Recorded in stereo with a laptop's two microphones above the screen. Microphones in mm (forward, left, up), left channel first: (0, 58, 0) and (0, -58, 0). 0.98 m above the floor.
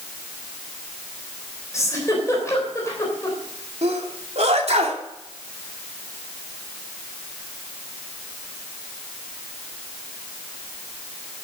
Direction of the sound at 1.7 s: 25° left (ahead or behind).